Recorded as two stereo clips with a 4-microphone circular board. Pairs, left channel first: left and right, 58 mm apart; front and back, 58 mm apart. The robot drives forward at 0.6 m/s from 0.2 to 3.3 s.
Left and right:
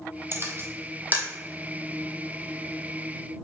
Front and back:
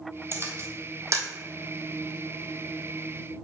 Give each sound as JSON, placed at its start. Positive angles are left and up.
{"t": 0.3, "sound": "a camera shutter", "azimuth_deg": -135, "distance_m": 1.0}